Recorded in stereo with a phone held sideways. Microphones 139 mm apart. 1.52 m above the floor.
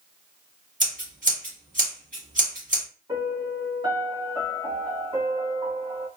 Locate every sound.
0.8 s scissors: 65° right (ahead or behind), 2.5 m
3.1 s a piano: 30° right (ahead or behind), 1.2 m